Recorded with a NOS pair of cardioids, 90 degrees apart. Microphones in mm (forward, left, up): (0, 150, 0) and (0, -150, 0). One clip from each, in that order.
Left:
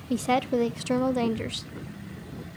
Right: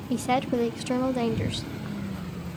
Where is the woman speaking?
5° left, 0.5 m.